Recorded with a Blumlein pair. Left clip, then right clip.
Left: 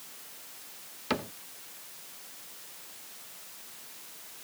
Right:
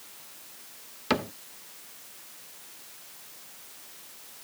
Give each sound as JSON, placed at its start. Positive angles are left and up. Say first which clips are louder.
{"t": 1.1, "sound": "a cupboard door", "louder": "right 5 dB", "azimuth_deg": -15}